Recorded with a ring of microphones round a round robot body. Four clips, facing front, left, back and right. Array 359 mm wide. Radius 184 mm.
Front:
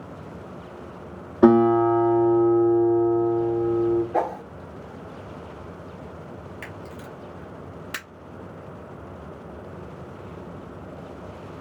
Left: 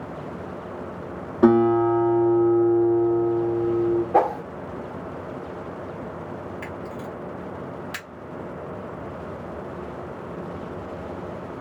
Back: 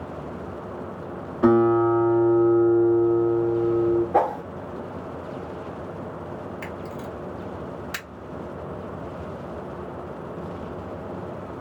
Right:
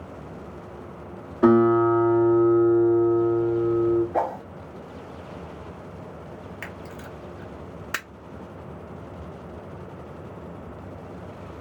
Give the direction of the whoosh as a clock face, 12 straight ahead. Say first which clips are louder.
Left 6 dB, back 4 dB; 8 o'clock.